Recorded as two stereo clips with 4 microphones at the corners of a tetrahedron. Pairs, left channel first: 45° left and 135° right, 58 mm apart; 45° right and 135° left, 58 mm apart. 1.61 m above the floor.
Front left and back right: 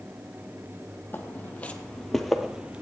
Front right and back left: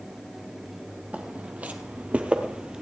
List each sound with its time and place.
1.1 s footsteps: 80° left, 2.5 m; by 2.8 s 160° right, 1.7 m